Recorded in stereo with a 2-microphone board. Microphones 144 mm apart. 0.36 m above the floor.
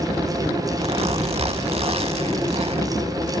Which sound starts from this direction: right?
A zipper, at 0.8 s.